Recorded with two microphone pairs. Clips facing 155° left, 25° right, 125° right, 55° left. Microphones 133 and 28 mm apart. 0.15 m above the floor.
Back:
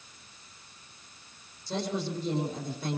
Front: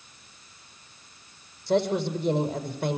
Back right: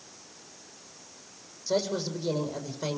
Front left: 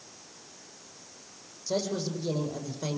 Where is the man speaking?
45° right, 6 m.